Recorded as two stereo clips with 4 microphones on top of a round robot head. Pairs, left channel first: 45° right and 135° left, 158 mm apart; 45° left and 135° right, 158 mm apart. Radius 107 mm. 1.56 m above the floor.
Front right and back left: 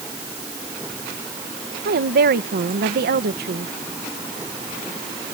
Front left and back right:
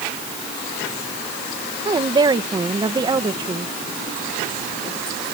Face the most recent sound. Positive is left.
turn(degrees=160)